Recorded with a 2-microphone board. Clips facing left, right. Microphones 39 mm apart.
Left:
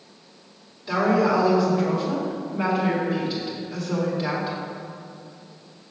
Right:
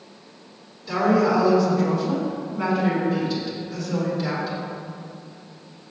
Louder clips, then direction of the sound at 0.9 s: Right 1 dB; 15° left (ahead or behind).